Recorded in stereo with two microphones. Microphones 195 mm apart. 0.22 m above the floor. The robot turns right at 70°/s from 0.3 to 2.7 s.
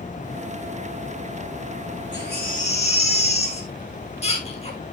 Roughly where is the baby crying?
Left.